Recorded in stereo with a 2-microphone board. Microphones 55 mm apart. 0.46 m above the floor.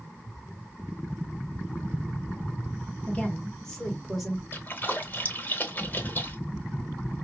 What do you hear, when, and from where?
3.1 s a woman speaking: 25° left (ahead or behind), 1.5 m; by 4.4 s 5° right (ahead or behind), 1.6 m
4.5 s a splash: 35° left (ahead or behind), 0.9 m